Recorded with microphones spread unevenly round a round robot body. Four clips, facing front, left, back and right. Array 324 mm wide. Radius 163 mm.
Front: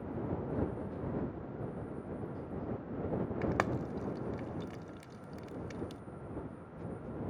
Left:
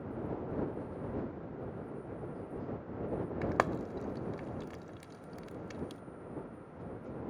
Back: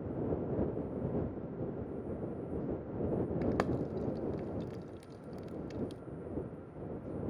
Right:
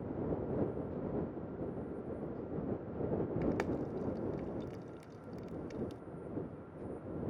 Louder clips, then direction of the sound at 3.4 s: Left 2 dB, back 1 dB; 70° left.